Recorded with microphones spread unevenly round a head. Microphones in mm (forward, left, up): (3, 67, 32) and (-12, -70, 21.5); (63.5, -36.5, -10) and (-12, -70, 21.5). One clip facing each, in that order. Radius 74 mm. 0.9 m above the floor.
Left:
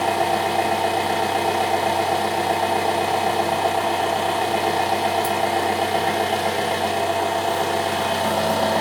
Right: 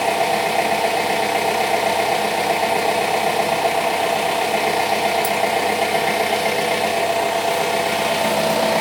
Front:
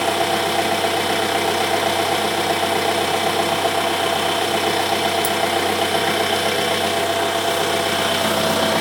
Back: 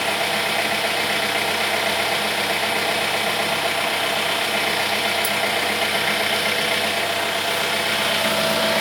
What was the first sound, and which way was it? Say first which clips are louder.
An engine running: right 2 dB, front 4 dB; 20° right.